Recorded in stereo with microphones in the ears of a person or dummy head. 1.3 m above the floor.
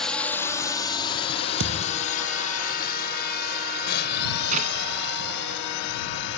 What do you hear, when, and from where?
0.0 s a drone: centre (ahead or behind); by 6.4 s 55° left (ahead or behind)
1.6 s a thud: 70° right (ahead or behind)
4.5 s a clap: 45° right (ahead or behind)